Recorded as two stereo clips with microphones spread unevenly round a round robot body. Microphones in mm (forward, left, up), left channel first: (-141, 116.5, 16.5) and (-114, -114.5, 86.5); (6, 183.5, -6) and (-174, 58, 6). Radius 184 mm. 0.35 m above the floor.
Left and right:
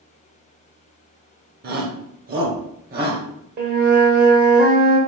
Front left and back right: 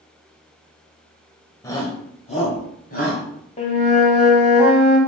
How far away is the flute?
About 1.3 m.